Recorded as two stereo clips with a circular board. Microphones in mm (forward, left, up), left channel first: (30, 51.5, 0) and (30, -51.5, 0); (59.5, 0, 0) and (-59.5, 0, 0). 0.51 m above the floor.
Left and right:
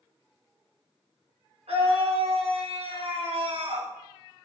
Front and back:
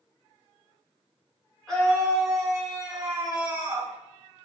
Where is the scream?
85° right, 6 m; by 3.9 s 105° right, 5.5 m.